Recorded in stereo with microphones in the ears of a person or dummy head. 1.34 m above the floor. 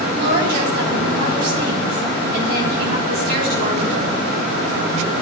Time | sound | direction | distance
0.1 | a woman speaking | 50° right (ahead or behind) | 8 m